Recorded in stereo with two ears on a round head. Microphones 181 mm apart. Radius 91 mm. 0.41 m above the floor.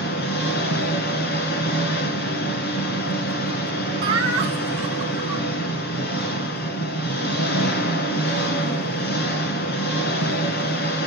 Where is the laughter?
30° right (ahead or behind), 4.5 m.